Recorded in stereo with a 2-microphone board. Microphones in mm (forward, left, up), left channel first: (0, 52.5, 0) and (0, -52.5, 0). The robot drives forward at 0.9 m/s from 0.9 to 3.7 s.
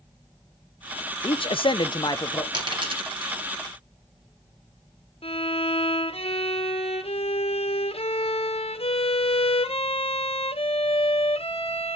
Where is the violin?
70° left (ahead or behind), 0.9 m.